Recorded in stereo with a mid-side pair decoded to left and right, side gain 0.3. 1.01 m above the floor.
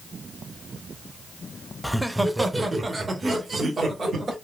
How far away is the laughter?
About 0.8 m.